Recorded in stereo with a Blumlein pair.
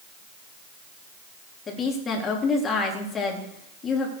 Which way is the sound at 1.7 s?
20° left.